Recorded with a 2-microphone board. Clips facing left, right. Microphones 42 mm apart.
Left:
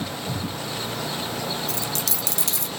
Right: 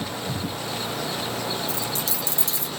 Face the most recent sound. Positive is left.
turn(degrees=70)  # may be behind; listen again after turning